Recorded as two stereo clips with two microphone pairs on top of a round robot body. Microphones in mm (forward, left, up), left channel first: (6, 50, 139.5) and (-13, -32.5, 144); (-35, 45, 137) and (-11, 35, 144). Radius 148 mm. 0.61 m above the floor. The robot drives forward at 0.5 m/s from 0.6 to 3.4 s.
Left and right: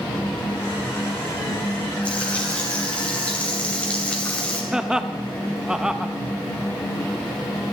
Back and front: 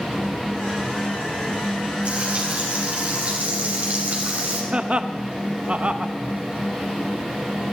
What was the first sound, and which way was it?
Frying, straight ahead.